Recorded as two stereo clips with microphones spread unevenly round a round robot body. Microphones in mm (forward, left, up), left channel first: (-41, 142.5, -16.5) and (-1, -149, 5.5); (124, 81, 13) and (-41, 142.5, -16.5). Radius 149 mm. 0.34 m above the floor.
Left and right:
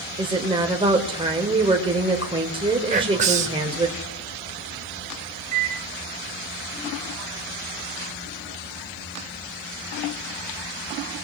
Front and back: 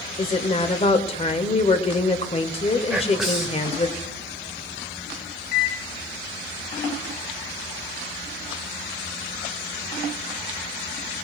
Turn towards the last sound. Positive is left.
turn(degrees=-20)